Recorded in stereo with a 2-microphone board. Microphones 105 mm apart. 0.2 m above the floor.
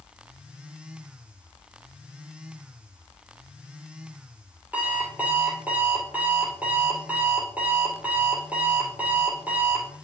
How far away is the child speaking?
No child speaking in this recording.